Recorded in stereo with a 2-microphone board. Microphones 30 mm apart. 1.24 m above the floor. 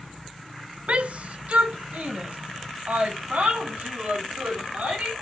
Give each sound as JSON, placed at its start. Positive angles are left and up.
{"t": 0.9, "sound": "a shout", "side_deg": -45, "distance_m": 0.8}